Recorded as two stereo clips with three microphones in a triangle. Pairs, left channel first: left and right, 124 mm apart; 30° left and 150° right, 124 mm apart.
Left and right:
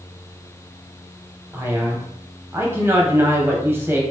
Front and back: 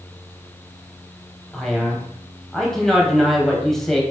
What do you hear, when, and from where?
1.5 s a man speaking: 50° right, 1.0 m